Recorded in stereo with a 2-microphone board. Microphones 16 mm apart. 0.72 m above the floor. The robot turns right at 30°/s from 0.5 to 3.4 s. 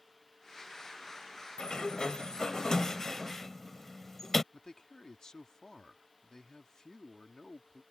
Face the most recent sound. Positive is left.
turn(degrees=45)  # may be behind; listen again after turning